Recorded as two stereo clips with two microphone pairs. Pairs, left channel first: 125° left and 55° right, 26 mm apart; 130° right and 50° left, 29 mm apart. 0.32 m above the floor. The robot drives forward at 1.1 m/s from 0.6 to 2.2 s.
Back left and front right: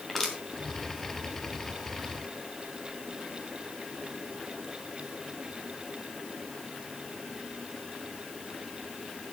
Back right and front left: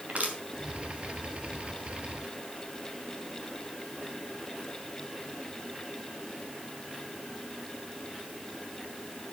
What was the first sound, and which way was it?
Crushing, 50° left.